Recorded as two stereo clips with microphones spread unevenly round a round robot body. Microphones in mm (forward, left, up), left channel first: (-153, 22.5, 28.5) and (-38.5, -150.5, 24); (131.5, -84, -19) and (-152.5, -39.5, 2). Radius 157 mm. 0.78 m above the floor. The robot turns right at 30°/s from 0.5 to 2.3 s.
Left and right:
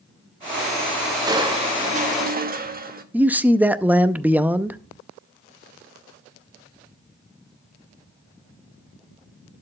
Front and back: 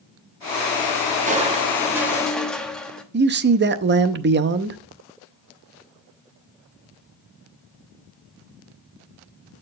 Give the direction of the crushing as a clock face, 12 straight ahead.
4 o'clock.